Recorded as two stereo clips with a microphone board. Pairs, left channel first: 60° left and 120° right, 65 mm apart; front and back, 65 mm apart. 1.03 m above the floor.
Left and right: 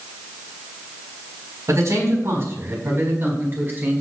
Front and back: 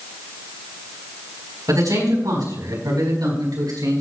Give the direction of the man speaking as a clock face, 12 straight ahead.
5 o'clock.